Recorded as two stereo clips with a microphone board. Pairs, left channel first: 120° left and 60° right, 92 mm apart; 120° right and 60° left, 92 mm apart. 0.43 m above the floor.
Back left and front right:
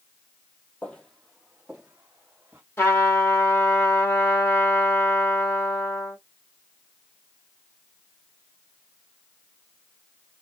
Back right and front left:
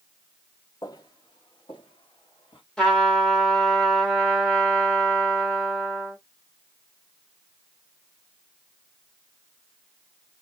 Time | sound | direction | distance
0.8 | footsteps | 165° right | 0.9 m
2.8 | a trumpet | 165° left | 1.4 m